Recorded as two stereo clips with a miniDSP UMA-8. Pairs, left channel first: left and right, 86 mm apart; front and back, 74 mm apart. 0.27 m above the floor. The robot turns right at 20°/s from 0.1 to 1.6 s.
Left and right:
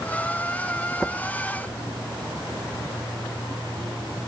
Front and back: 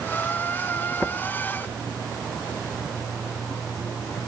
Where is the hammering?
No hammering in this recording.